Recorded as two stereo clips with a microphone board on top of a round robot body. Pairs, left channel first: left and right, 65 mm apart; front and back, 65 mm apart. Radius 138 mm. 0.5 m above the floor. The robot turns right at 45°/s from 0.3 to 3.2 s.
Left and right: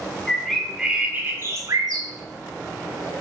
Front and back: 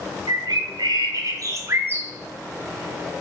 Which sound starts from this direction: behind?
A bird, at 0.3 s.